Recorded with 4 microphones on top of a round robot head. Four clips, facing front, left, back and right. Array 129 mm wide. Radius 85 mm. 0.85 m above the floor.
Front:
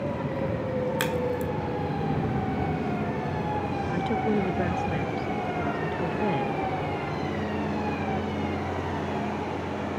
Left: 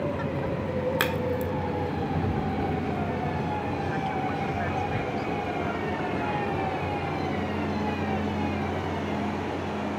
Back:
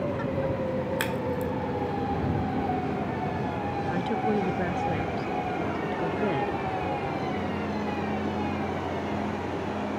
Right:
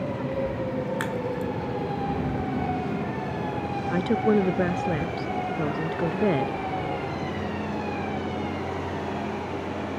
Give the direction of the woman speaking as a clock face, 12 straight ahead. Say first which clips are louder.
Right 7 dB, front 1 dB; 3 o'clock.